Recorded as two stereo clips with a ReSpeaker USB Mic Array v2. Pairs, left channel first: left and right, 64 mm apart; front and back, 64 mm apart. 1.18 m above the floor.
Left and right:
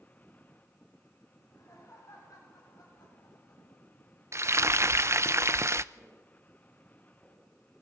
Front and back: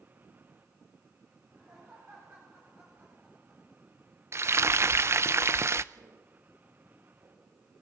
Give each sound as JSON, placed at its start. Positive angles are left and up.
{"t": 1.4, "sound": "laughter", "azimuth_deg": 135, "distance_m": 8.0}
{"t": 4.3, "sound": "frying", "azimuth_deg": -135, "distance_m": 0.6}
{"t": 5.9, "sound": "footsteps", "azimuth_deg": -170, "distance_m": 9.5}